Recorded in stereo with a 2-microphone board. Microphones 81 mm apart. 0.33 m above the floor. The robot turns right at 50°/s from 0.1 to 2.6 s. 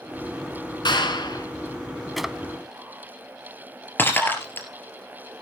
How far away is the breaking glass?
About 2.5 m.